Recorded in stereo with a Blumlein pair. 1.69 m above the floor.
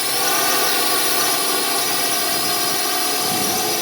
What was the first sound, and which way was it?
A drone, 5° left.